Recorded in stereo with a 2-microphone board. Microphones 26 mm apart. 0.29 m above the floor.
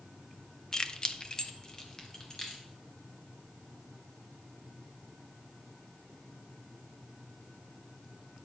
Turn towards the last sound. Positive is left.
turn(degrees=20)  # may be behind; listen again after turning